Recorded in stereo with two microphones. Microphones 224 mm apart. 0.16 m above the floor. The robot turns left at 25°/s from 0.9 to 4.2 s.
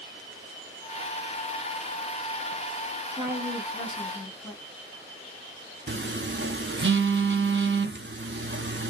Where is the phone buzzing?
55° right (ahead or behind), 0.5 m.